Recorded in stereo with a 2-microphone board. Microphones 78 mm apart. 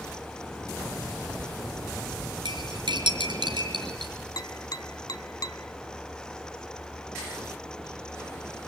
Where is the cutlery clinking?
80° right, 4 m.